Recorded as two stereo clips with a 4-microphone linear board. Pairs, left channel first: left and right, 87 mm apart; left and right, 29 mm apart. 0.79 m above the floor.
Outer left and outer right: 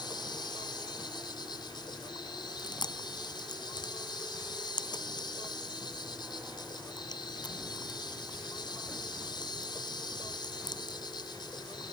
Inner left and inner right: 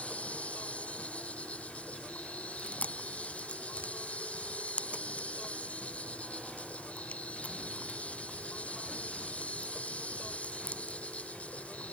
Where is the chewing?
55° left (ahead or behind).